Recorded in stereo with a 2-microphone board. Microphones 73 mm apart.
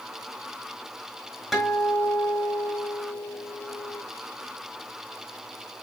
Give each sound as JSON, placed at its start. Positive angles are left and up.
{"t": 1.5, "sound": "a guitar", "side_deg": 0, "distance_m": 6.0}